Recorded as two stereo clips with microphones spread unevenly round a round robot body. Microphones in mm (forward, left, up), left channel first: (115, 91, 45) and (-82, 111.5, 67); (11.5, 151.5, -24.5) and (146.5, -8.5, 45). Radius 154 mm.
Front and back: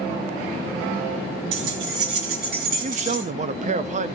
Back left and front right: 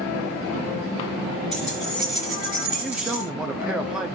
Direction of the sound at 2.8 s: 170° right.